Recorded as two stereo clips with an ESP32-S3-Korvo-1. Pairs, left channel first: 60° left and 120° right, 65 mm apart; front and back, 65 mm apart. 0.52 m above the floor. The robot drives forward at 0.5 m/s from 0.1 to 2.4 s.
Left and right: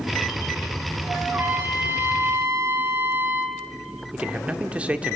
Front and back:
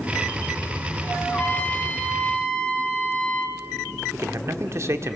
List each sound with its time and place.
1.3 s a trumpet: 65° right, 4.5 m; by 3.6 s 70° right, 4 m
4.1 s a man speaking: 175° left, 1.1 m